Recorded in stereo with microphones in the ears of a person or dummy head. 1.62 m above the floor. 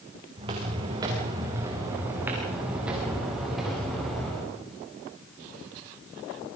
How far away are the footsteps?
About 6.5 m.